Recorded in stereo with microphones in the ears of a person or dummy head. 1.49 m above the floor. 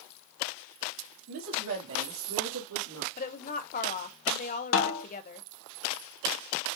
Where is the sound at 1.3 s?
65° right (ahead or behind), 2.5 m; by 3.1 s 80° right, 2 m.